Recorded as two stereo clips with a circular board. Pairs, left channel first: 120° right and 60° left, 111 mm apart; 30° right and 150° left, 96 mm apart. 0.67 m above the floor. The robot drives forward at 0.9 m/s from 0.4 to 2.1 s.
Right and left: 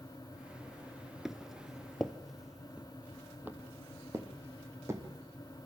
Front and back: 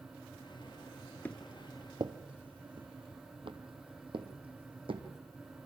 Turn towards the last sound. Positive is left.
turn(degrees=125)